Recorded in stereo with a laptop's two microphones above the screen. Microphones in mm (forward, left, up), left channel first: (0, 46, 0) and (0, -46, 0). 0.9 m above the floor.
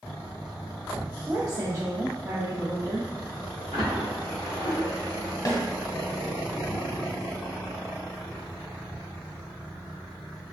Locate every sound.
1.3 s a woman speaking: 35° right (ahead or behind), 0.7 m
3.7 s a splash: 55° right (ahead or behind), 1.6 m
5.5 s a snare drum: 35° left (ahead or behind), 0.8 m